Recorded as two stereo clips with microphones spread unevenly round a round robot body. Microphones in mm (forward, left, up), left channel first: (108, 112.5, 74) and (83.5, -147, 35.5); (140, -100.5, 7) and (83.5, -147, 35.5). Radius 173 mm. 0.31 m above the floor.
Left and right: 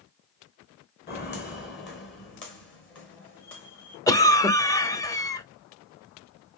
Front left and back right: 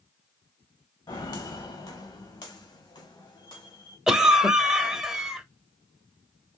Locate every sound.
1.1 s footsteps: 30° left, 1.6 m; by 4.0 s 45° left, 4.5 m
4.1 s a cough: 5° left, 0.9 m